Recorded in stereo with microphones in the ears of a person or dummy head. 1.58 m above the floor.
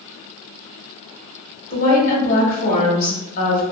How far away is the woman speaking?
About 1.3 m.